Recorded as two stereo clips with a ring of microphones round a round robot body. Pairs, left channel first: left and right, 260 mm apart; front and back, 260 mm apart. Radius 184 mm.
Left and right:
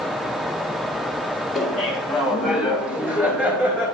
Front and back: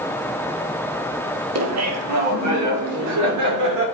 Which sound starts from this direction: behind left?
Laughter, at 1.6 s.